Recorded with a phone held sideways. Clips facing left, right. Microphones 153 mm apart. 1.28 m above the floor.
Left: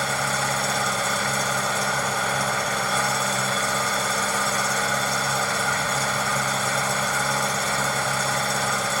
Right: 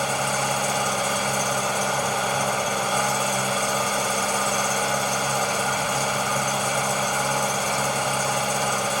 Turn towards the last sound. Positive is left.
turn(degrees=-15)  # may be behind; listen again after turning